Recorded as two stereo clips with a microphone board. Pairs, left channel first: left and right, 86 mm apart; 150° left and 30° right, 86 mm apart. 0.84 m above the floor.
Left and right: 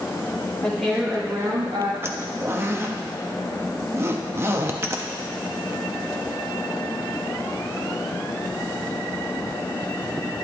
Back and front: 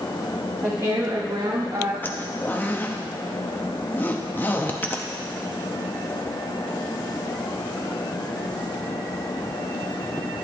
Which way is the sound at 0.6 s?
15° left.